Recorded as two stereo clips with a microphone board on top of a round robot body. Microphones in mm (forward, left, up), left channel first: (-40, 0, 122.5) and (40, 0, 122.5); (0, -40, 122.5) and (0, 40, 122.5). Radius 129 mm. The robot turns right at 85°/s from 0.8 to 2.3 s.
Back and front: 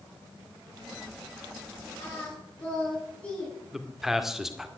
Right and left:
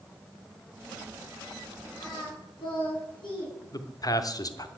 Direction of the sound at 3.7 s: 85° right.